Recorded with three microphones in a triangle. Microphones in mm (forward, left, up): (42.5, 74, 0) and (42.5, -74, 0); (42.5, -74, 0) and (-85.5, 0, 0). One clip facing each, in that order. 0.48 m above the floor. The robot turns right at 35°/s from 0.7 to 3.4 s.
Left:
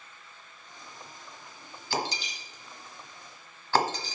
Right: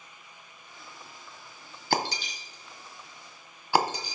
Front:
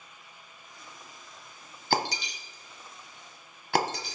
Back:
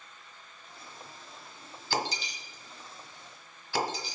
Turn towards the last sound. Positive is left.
turn(degrees=-10)